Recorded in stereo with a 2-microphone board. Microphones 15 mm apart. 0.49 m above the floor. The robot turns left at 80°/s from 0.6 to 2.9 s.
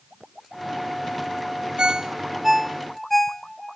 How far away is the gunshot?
I don't hear a gunshot.